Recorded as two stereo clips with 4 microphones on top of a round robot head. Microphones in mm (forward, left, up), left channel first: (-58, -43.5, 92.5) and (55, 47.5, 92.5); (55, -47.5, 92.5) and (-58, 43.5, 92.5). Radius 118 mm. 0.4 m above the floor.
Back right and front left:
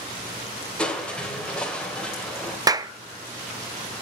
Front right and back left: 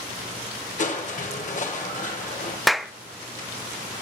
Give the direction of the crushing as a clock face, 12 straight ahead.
2 o'clock.